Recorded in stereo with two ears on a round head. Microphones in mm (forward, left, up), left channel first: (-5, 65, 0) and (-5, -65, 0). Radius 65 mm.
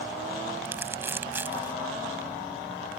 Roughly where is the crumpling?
Centre.